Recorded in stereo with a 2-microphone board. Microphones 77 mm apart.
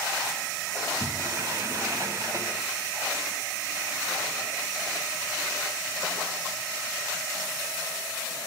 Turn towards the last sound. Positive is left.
turn(degrees=-45)  # may be behind; listen again after turning